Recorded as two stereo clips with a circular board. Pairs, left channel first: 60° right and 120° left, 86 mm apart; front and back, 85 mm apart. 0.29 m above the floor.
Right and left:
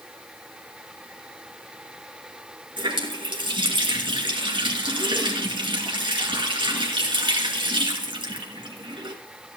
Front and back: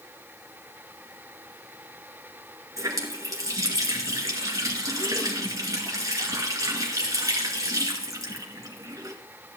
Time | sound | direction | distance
2.8 | a running tap | 135° left | 2.5 m